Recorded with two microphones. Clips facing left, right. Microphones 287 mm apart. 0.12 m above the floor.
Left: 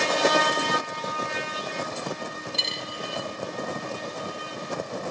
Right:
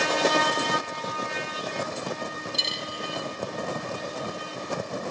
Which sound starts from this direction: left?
A dropped coin, at 2.5 s.